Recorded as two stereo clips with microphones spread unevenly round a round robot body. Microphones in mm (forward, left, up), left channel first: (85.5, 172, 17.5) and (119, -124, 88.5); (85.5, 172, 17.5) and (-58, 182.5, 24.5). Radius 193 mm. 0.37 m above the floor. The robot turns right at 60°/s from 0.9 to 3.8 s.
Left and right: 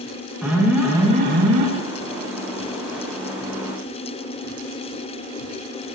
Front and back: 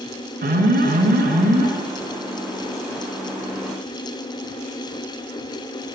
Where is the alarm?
175° right, 7 m; by 1.7 s 125° right, 7 m.